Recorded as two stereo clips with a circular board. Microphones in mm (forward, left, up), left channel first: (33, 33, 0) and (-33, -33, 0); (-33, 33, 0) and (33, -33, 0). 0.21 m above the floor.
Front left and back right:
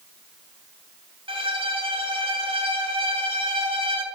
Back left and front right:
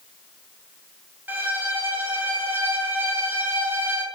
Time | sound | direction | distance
1.3 | a violin | 115° right | 0.5 m